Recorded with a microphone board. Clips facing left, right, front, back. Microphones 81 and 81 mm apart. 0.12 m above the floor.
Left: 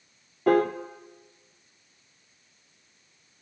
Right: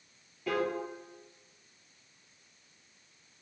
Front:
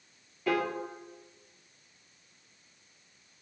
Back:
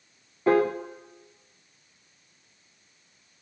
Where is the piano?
125° left, 1.0 m.